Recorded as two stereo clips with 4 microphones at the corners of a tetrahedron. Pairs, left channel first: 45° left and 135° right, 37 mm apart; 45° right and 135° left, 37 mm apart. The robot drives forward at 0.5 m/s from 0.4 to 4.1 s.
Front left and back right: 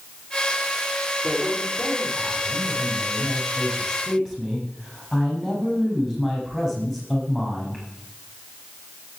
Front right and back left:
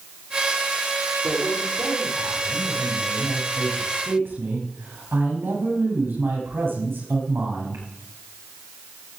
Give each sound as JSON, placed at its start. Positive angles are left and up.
{"t": 1.2, "sound": "a man speaking", "azimuth_deg": 140, "distance_m": 7.0}